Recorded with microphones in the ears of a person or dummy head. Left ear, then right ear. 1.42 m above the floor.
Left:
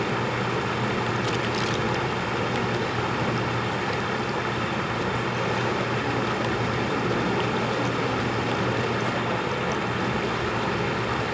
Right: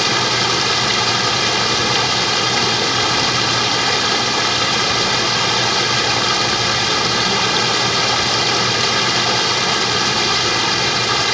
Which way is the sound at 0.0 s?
80° right.